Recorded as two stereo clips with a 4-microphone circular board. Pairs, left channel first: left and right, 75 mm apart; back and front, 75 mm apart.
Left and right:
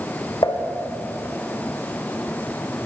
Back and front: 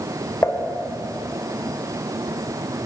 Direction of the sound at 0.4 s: 120° left.